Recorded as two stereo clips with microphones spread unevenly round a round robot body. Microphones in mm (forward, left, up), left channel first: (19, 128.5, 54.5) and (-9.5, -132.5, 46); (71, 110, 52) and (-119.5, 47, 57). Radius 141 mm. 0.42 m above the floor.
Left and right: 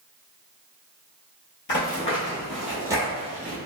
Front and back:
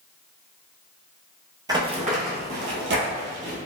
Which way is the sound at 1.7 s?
130° left.